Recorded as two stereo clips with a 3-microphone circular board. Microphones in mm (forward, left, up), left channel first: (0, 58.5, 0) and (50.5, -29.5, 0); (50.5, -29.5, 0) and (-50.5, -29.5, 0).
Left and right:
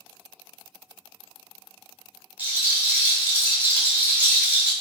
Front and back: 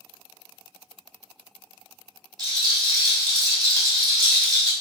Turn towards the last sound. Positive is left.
turn(degrees=-135)